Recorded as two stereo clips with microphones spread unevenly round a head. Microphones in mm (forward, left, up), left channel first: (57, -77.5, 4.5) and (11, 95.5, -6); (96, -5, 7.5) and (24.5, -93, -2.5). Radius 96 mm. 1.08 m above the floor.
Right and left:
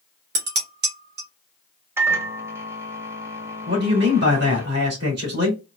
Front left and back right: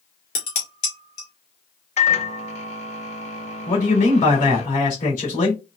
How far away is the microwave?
About 0.7 m.